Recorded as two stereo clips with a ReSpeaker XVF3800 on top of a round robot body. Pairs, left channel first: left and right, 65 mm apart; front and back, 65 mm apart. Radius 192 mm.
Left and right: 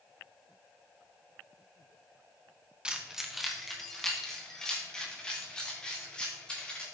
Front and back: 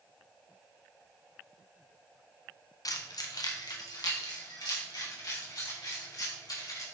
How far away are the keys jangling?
About 1.1 m.